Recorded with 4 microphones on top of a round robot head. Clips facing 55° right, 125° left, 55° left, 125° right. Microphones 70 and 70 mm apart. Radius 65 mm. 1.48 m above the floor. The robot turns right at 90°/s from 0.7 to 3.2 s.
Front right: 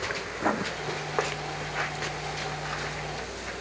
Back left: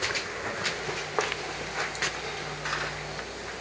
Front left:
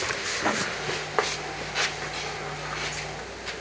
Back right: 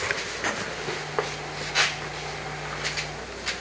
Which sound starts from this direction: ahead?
Writing, at 0.4 s.